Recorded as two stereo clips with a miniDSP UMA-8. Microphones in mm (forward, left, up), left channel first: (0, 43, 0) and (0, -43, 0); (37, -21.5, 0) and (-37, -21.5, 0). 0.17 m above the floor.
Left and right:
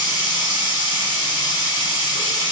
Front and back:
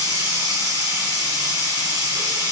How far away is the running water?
About 1.7 m.